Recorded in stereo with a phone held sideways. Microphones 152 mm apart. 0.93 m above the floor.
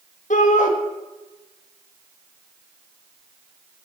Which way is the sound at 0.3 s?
55° left (ahead or behind).